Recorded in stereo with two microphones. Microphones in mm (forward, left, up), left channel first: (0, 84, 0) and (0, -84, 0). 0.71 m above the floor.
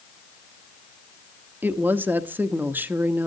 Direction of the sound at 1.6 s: 10° right (ahead or behind).